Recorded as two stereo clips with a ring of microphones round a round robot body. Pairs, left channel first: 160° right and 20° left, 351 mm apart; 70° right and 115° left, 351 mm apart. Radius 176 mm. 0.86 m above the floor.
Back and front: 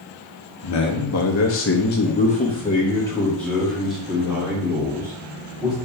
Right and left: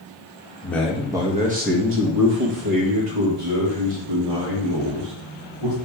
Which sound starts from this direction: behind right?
A man speaking, at 0.6 s.